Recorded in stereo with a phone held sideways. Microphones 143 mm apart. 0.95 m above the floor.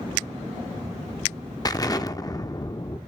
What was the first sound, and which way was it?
An explosion, 25° left (ahead or behind).